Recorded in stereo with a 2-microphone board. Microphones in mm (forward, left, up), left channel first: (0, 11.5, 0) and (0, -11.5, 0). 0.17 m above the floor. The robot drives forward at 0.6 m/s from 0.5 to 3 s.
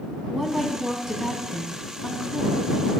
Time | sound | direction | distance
0.3 | a woman speaking | 15° right (ahead or behind) | 1.3 m